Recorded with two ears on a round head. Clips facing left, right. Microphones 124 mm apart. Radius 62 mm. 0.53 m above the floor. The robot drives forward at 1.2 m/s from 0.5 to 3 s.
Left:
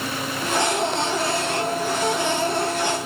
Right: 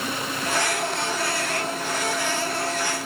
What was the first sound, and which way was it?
Only background noise.